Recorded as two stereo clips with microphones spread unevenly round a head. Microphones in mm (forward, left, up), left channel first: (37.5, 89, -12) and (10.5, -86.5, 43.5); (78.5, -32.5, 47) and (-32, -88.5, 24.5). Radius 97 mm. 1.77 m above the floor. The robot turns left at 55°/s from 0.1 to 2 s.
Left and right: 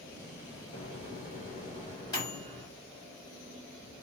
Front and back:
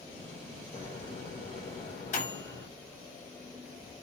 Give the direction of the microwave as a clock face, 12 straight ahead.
9 o'clock.